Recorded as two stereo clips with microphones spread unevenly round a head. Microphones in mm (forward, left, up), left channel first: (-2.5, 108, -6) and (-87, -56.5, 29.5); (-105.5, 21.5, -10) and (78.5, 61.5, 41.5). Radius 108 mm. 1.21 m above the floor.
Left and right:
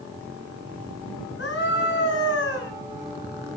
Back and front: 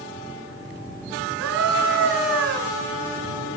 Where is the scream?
20° left, 8.5 m.